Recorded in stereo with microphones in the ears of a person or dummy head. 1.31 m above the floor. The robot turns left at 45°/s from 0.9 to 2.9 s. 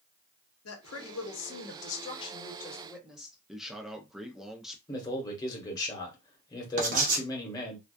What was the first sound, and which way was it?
A woman speaking, 90° left.